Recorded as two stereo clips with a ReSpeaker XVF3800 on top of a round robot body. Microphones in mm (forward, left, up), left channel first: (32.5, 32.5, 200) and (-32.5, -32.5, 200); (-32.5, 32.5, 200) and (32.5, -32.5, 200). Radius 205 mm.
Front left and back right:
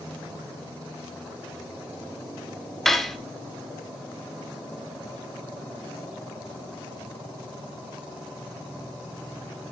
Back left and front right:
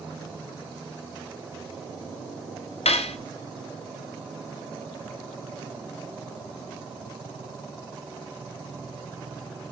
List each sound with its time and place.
2.9 s cutlery clinking: 130° left, 1.0 m